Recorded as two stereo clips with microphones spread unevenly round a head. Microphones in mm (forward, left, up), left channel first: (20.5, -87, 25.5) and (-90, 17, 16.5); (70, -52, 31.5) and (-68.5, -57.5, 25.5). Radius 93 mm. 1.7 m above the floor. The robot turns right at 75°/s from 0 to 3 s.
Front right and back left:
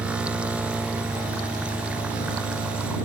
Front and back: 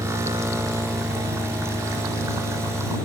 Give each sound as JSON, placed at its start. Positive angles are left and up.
{"t": 0.0, "sound": "an engine running", "azimuth_deg": 120}